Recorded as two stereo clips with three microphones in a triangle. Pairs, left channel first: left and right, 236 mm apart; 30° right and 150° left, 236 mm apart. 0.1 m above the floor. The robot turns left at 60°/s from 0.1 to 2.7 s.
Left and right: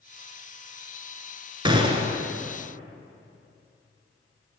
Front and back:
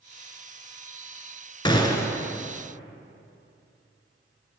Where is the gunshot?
60° right, 0.5 m; by 2.2 s 95° right, 0.5 m.